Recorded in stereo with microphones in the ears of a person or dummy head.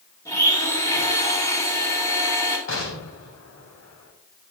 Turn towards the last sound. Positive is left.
turn(degrees=70)  # may be behind; listen again after turning